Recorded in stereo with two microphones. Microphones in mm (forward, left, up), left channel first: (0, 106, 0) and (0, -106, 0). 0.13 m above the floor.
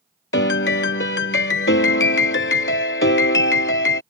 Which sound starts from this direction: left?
A piano, at 0.3 s.